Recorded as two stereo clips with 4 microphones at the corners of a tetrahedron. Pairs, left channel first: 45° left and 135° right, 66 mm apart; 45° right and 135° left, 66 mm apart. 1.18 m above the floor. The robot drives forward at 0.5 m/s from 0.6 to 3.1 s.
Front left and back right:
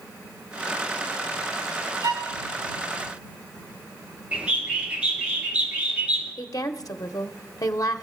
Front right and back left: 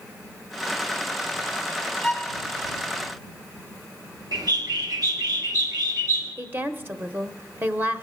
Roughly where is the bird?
Behind left.